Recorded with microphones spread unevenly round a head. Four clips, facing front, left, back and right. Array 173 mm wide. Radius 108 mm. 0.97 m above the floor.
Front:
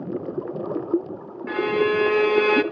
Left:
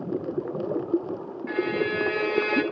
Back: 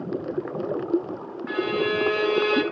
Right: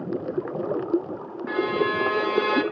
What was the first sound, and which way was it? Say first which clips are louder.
A violin: right 2 dB, front 4 dB; 40° right.